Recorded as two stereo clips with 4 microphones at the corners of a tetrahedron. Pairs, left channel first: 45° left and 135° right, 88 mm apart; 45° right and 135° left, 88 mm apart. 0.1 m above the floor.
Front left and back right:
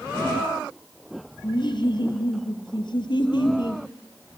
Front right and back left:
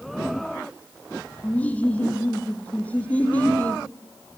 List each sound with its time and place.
1.4 s laughter: 25° left, 3 m